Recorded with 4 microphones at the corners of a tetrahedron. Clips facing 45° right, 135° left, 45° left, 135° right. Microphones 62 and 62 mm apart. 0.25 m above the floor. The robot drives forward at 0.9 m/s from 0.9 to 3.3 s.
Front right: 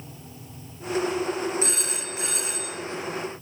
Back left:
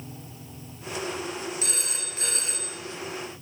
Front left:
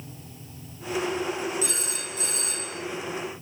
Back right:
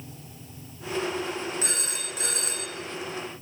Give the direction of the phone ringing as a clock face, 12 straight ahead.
3 o'clock.